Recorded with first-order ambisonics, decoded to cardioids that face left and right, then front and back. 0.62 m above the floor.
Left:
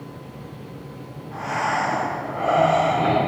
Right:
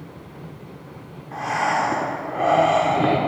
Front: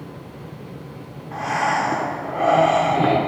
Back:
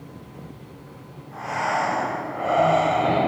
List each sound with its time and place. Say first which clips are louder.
1.3 s breathing: right 2 dB, front 4 dB; 40° right, 1.3 m